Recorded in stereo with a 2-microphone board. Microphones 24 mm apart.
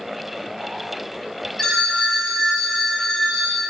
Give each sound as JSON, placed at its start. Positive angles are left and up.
{"t": 1.6, "sound": "a phone ringing", "side_deg": 20, "distance_m": 0.7}